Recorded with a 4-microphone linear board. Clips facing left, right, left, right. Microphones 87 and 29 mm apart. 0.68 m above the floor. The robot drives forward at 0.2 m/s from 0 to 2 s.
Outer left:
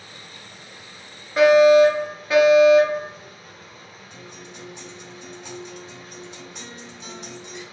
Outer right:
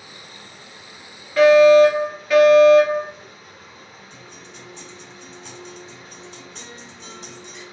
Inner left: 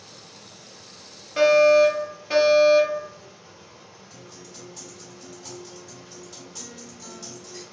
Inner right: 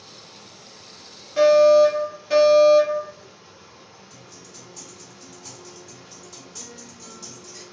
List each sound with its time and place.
0.0 s running water: 30° right (ahead or behind), 1.5 m; by 7.8 s 25° right (ahead or behind), 1.9 m
1.4 s a fire alarm: 15° left (ahead or behind), 1.6 m
4.1 s a guitar: 10° left (ahead or behind), 1.7 m